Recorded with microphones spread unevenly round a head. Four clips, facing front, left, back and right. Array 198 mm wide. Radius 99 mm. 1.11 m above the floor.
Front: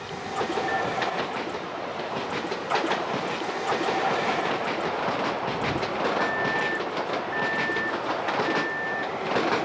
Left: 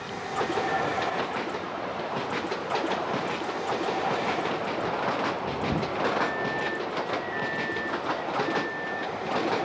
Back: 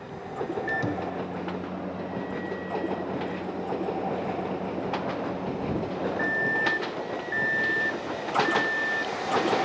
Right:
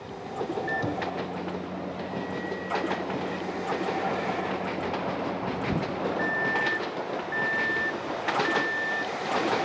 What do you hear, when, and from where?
0.7 s a microwave: 140° right